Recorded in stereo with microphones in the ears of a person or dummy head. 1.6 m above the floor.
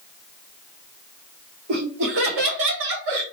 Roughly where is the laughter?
Right.